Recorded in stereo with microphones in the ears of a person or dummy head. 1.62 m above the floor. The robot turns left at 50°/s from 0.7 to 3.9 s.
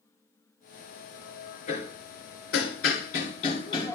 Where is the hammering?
50° left (ahead or behind), 2.5 m; by 4.0 s 15° left (ahead or behind), 2.5 m.